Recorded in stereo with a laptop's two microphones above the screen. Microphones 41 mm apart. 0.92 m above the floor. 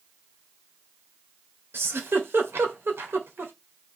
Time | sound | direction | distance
1.7 | a giggle | 70° right (ahead or behind) | 1.8 m